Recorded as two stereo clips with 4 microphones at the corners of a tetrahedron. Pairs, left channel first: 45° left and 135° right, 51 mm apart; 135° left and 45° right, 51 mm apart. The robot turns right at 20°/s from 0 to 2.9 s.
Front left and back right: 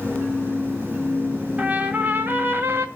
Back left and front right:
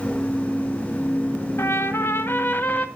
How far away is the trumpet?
About 2 m.